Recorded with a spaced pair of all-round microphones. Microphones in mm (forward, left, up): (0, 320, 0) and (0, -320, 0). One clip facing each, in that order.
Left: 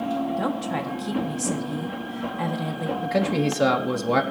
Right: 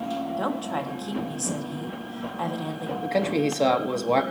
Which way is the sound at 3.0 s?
40° left (ahead or behind).